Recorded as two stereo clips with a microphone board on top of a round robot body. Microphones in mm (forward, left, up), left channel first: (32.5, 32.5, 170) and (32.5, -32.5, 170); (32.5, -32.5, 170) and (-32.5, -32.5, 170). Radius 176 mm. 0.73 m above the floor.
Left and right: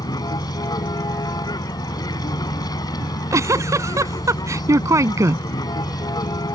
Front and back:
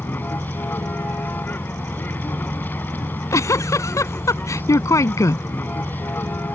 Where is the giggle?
45° right.